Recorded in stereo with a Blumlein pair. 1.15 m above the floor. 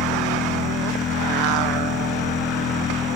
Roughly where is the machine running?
Ahead left.